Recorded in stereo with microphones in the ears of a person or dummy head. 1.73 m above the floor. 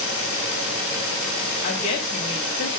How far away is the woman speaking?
About 0.7 m.